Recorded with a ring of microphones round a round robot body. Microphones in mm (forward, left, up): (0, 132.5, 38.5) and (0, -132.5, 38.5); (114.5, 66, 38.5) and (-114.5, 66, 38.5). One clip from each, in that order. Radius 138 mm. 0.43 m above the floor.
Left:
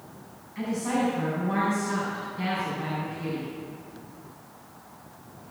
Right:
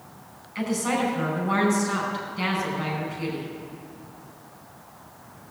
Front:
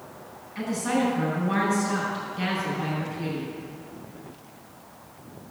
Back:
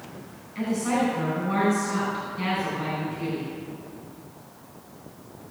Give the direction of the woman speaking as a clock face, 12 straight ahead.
3 o'clock.